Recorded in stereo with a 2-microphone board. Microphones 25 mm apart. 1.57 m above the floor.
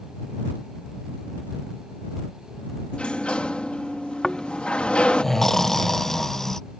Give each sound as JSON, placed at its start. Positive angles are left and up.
{"t": 2.9, "sound": "a sliding door", "side_deg": 45}
{"t": 4.2, "sound": "snoring", "side_deg": 20}